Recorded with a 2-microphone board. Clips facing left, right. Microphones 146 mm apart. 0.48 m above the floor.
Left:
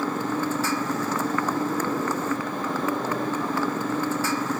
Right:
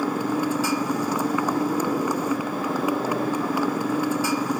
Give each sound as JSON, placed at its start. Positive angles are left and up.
{"t": 0.0, "sound": "a motorcycle", "side_deg": -10}